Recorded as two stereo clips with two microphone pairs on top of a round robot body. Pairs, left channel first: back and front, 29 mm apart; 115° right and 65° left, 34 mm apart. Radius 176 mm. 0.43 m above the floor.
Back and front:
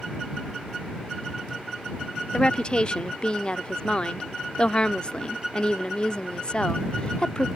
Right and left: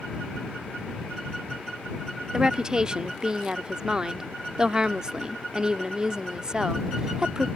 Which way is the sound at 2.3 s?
135° left.